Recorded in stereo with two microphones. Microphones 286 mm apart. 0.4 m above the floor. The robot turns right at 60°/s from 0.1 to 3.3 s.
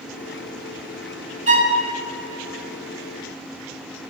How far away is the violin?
About 1.4 m.